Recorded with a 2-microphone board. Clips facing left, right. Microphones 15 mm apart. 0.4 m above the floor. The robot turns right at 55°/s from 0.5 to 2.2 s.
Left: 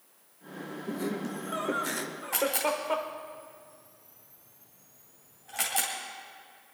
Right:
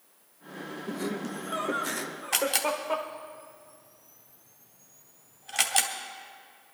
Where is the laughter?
55° right, 1.0 m; by 3.1 s 15° left, 1.0 m.